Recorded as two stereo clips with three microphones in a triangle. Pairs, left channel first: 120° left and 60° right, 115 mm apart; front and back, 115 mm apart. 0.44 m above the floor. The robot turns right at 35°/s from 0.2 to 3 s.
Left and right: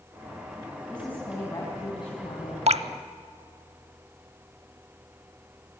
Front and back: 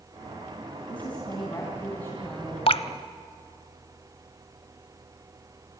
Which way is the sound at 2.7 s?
40° right.